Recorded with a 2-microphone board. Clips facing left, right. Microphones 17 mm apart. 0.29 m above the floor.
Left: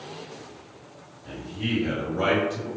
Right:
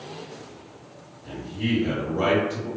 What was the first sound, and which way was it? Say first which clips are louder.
A man speaking: right 2 dB; 20° right (ahead or behind).